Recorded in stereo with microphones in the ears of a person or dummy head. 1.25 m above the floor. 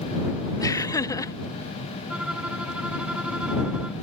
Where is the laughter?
20° left (ahead or behind).